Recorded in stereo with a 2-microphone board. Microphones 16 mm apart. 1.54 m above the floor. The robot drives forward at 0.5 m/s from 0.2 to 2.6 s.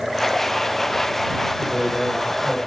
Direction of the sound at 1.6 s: 40° right (ahead or behind).